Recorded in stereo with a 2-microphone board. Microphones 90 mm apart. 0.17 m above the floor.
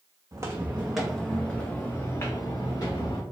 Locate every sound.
0.3 s footsteps: 35° right (ahead or behind), 0.6 m; by 3.2 s 45° left (ahead or behind), 1.5 m